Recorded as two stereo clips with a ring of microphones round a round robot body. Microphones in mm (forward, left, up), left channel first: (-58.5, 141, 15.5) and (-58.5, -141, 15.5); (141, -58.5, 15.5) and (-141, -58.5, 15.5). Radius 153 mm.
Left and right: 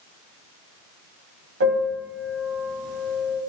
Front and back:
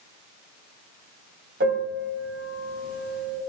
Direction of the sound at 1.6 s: 125° right.